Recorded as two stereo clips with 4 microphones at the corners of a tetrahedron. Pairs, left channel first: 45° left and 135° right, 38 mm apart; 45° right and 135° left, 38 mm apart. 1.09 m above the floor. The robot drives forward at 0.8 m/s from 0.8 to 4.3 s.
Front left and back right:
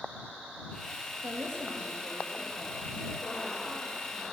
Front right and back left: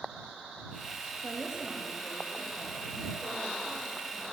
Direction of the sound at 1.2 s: 155° right.